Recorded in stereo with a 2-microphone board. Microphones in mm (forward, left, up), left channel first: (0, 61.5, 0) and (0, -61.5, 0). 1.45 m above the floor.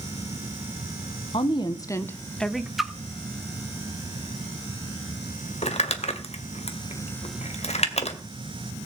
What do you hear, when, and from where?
1.3 s a woman speaking: 45° left (ahead or behind), 1.3 m; by 2.7 s 5° right (ahead or behind), 1.3 m
2.8 s a splash: centre (ahead or behind), 0.9 m
5.6 s crumpling: 60° left (ahead or behind), 2 m